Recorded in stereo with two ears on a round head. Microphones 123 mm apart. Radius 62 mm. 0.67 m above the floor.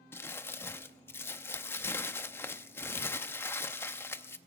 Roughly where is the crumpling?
Centre.